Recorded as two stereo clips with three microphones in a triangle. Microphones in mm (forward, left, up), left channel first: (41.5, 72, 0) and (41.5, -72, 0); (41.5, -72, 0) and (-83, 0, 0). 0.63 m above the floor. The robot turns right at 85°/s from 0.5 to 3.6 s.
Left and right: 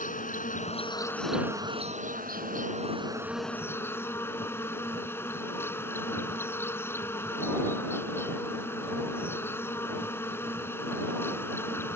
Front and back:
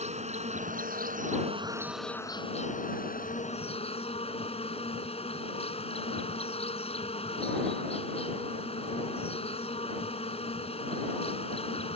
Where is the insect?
115° left; by 12.0 s 15° left.